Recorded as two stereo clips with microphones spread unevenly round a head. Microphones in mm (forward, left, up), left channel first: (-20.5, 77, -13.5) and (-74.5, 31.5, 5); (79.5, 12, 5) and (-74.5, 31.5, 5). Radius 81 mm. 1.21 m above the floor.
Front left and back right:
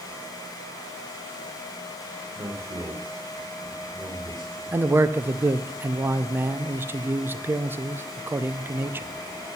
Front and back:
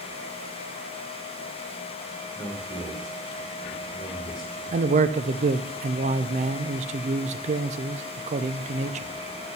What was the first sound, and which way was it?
A man speaking, 75° right.